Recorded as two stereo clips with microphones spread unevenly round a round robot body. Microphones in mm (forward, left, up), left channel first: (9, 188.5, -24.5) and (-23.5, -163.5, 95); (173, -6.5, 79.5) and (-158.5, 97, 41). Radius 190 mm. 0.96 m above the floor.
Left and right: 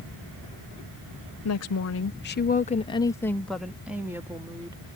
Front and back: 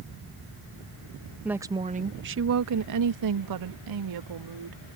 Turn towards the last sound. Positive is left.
turn(degrees=180)